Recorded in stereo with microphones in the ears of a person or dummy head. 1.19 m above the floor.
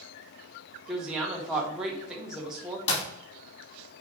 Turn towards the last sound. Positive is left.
turn(degrees=35)  # may be behind; listen again after turning